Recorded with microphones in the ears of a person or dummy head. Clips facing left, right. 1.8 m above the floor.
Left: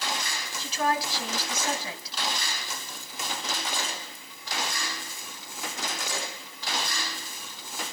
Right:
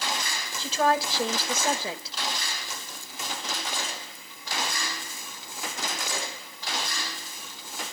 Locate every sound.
0.6 s a woman speaking: 30° right (ahead or behind), 3 m